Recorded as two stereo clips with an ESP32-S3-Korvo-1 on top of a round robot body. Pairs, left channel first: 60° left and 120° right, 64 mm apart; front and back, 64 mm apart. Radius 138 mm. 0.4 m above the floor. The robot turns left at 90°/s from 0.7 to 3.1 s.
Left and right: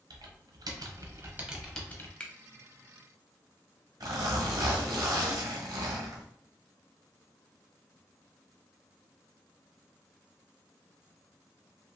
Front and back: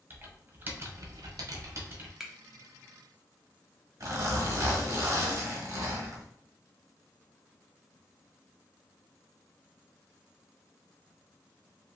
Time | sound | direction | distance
0.1 | typing on a keyboard | 120° right | 0.9 m
2.2 | a finger snap | 110° left | 0.8 m
4.0 | a zipper | 145° right | 1.3 m